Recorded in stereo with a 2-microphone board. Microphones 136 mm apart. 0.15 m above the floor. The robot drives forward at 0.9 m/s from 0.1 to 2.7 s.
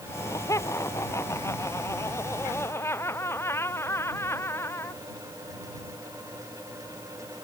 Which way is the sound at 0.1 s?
20° left (ahead or behind).